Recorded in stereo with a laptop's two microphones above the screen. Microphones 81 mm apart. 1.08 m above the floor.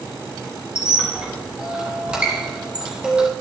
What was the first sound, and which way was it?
A squeak, 10° right (ahead or behind).